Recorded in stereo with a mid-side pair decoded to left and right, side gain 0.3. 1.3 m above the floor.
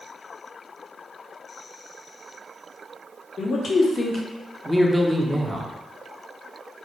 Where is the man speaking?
70° left, 0.7 m; by 5.7 s 30° right, 0.8 m.